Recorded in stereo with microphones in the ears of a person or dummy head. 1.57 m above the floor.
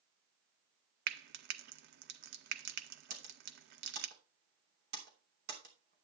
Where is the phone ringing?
I don't hear a phone ringing.